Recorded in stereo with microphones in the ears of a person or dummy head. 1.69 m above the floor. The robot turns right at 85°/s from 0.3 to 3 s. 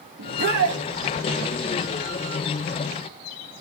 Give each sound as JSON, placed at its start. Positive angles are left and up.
{"t": 0.2, "sound": "a shout", "azimuth_deg": -110, "distance_m": 3.0}